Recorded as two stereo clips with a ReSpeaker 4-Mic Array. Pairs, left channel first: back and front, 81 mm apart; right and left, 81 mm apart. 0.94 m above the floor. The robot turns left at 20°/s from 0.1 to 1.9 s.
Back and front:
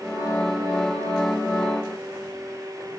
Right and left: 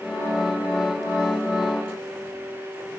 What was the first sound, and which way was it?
Only background noise.